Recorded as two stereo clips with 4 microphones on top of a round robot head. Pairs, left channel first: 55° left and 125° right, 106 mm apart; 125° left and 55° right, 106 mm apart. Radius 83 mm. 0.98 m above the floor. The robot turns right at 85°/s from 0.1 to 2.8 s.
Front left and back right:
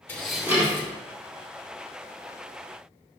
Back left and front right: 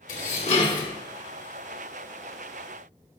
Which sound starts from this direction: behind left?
Dishes clattering, at 0.1 s.